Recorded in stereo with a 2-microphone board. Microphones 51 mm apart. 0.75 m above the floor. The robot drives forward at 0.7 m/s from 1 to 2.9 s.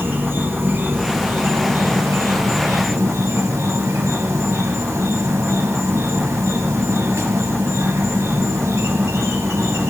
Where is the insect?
45° right (ahead or behind), 1.7 m; by 9.9 s 70° right (ahead or behind), 1.3 m.